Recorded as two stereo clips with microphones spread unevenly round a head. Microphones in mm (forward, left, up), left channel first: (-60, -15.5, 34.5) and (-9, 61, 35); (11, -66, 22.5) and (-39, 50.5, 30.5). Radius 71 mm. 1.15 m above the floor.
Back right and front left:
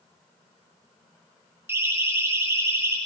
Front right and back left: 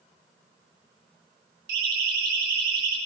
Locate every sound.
1.7 s a siren: 120° left, 10 m; by 3.0 s 115° left, 11 m